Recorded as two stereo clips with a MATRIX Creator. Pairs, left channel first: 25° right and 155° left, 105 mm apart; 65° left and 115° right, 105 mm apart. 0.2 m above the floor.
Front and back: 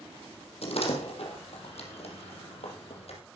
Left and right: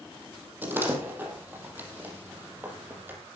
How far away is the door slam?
About 4.5 m.